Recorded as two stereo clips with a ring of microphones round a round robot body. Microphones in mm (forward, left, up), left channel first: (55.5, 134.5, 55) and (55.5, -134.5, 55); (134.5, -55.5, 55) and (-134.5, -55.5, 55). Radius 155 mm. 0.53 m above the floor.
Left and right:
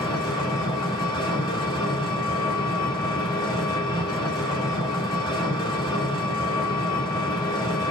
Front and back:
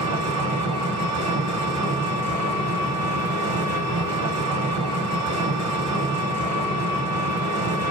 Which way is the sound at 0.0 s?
165° left.